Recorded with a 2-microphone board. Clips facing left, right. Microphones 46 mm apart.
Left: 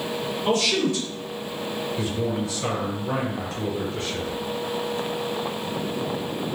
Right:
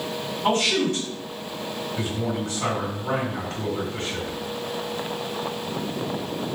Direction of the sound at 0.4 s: 45° right (ahead or behind).